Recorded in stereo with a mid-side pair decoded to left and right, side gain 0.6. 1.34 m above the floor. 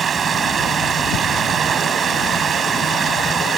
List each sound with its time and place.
0.0 s running water: 35° right